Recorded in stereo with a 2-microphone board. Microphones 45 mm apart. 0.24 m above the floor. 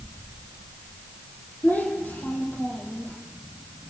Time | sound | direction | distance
1.6 | a child speaking | 40° left (ahead or behind) | 7.5 m